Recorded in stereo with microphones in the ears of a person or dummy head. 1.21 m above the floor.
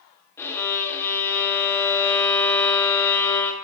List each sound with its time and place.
0.4 s a violin: 15° left (ahead or behind), 0.8 m